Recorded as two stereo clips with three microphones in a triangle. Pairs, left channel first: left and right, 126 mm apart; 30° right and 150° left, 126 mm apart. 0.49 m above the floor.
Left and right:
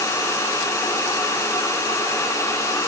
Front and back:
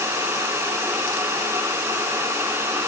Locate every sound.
Only background noise.